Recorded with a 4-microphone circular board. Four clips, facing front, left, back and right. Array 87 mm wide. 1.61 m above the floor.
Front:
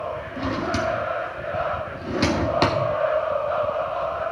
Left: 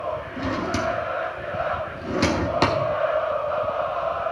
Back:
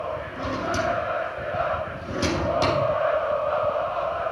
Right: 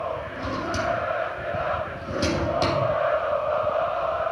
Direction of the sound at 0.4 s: 55° left.